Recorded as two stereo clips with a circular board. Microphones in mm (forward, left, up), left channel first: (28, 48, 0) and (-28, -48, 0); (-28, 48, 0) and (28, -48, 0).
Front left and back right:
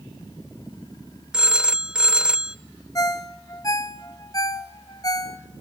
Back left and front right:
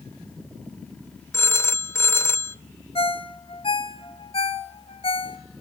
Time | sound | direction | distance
1.3 | a phone ringing | 165° left | 0.5 m
3.0 | a ringtone | 110° left | 1.1 m